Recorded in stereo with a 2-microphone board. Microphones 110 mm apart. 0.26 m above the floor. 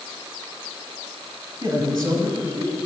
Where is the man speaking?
30° right (ahead or behind), 1.1 m.